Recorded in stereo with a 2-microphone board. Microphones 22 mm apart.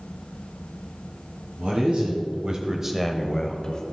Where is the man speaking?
55° right (ahead or behind), 2 m; by 3.8 s 35° left (ahead or behind), 1.7 m.